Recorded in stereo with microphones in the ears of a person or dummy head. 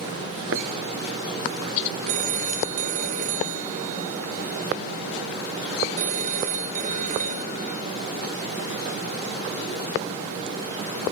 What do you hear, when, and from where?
0.5 s a thud: 80° right
2.1 s a phone ringing: 50° right (ahead or behind)